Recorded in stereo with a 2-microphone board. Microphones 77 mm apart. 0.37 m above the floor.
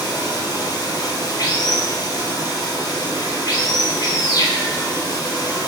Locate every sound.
0.0 s running water: 60° left (ahead or behind), 1.4 m